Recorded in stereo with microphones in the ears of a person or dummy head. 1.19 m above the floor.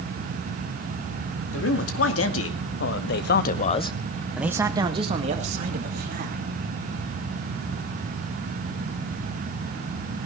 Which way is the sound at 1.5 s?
85° left.